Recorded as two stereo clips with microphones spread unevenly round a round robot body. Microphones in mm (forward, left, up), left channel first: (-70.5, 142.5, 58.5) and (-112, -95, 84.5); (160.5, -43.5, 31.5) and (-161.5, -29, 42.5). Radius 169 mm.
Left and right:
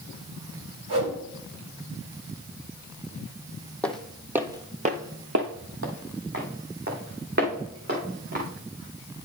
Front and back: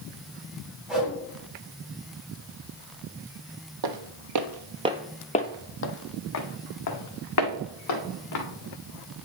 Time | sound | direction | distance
0.9 | a whoosh | 95° right | 4 m
3.8 | footsteps | 170° left | 1.1 m